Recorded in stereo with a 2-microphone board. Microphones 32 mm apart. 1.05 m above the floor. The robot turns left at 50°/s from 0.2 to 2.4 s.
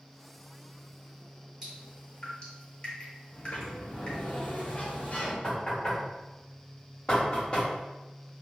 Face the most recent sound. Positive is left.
turn(degrees=25)  # may be behind; listen again after turning